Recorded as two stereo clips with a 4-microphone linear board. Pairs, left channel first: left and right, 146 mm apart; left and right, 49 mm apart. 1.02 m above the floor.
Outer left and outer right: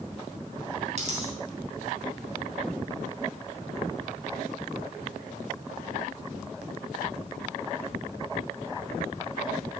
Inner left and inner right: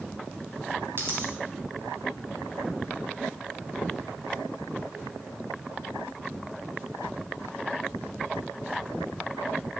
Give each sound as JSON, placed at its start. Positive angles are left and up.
{"t": 1.0, "sound": "a dropped coin", "side_deg": -50, "distance_m": 3.0}